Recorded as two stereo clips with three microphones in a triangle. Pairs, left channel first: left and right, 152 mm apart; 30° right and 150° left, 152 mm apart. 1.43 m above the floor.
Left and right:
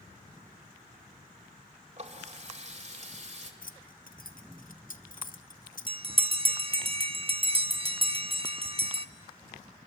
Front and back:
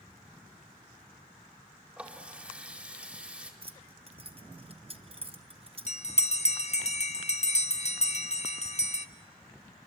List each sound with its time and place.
2.0 s a running tap: 130° right, 2.5 m
3.6 s keys jangling: 105° left, 0.8 m
5.9 s a bell: 50° right, 0.7 m